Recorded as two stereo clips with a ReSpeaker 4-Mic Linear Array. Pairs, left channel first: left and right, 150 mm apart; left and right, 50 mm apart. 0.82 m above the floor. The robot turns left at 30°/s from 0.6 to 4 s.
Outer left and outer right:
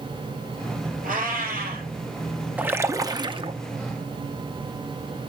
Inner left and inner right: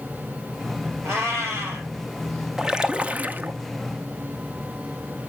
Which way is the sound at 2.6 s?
10° right (ahead or behind).